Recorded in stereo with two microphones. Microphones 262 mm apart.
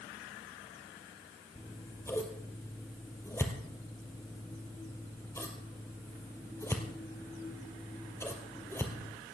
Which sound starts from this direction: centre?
Scissors, at 1.6 s.